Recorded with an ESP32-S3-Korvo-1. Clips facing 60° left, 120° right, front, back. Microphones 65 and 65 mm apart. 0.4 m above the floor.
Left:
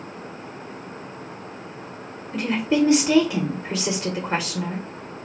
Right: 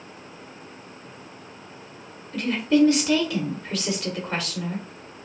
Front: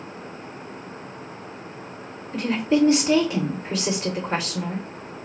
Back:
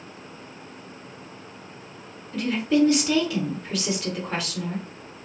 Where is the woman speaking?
30° left, 1.1 m.